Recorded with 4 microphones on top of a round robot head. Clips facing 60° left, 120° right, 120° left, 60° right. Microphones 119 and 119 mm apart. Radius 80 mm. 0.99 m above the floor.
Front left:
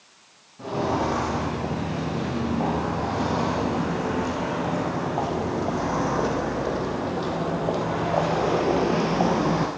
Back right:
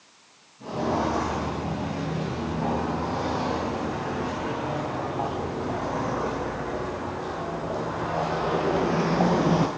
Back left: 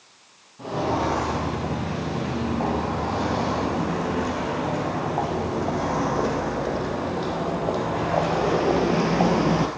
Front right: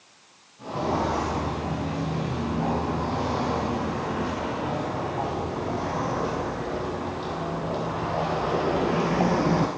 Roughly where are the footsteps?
Left.